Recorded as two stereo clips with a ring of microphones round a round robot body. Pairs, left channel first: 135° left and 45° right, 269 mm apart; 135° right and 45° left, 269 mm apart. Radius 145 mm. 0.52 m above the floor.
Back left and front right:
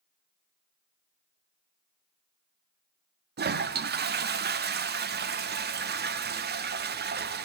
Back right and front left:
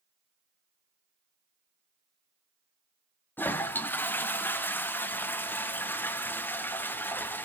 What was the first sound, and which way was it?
A toilet flushing, 55° right.